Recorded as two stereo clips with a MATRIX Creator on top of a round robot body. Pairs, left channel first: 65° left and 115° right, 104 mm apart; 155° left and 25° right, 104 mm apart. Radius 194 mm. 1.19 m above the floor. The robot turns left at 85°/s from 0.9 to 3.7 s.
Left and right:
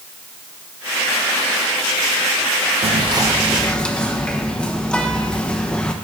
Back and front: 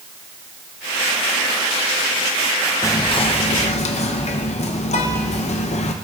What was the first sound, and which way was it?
Whispering, 135° right.